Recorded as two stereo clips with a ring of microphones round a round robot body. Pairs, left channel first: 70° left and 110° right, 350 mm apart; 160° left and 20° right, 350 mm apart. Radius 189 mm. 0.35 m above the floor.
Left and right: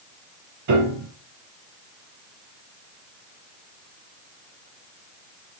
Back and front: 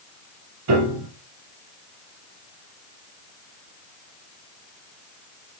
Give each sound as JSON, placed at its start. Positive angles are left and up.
{"t": 0.7, "sound": "a piano", "azimuth_deg": -70, "distance_m": 3.0}